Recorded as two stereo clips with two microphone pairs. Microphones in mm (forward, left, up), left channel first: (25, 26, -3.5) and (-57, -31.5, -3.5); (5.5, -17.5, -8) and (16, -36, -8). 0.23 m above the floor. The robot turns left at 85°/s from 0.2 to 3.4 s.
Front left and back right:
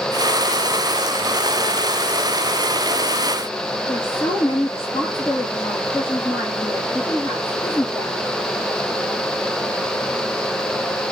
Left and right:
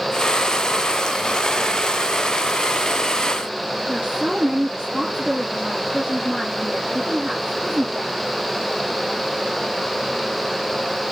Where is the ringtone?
I don't hear a ringtone.